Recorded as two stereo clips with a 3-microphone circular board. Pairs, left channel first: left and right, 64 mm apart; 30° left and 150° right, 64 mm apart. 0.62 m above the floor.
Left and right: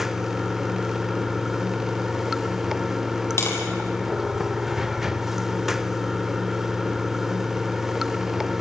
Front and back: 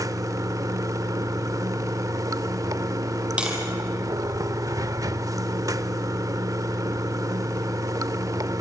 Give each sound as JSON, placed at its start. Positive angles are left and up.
{"t": 0.0, "sound": "running water", "azimuth_deg": -175, "distance_m": 0.8}
{"t": 3.4, "sound": "tapping", "azimuth_deg": 140, "distance_m": 5.0}